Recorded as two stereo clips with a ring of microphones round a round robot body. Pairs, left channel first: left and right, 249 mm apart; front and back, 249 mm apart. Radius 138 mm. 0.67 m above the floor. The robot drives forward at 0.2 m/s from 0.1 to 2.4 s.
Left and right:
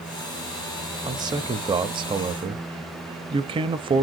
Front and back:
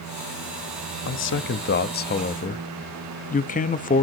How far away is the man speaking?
About 0.8 m.